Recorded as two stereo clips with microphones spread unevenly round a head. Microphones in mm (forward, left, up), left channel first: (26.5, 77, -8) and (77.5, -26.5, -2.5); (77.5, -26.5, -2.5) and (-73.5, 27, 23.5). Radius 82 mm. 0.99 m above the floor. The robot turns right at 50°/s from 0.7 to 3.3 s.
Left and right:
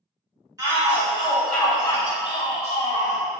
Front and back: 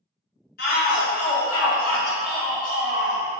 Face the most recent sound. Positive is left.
turn(degrees=125)